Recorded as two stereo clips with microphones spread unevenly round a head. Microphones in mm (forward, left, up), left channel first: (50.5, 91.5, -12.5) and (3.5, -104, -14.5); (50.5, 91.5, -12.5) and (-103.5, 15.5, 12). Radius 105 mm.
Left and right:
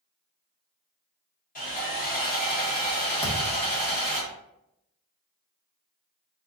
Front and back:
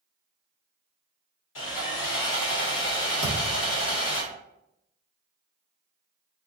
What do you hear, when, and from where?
1.6 s sawing: 30° left, 1.9 m
3.2 s a thud: 35° left, 1.2 m